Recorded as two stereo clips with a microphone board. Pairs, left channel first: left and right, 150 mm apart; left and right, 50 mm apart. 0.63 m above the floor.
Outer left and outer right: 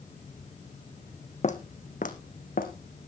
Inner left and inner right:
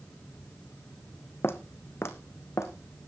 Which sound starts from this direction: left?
Footsteps, at 1.4 s.